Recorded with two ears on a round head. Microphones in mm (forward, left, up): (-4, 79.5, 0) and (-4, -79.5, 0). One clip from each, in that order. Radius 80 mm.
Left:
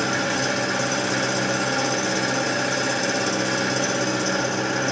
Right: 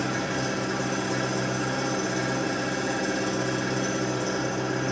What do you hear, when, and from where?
0.0 s an engine running: 60° left (ahead or behind), 1.0 m